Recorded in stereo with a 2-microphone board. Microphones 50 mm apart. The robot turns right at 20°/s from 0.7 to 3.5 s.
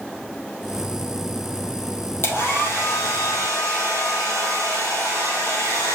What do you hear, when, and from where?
2.2 s a hair dryer: 50° left (ahead or behind), 2.5 m; by 6.0 s 75° left (ahead or behind), 2.5 m